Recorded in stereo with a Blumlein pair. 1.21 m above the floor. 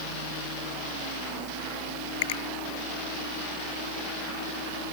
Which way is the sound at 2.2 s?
50° left.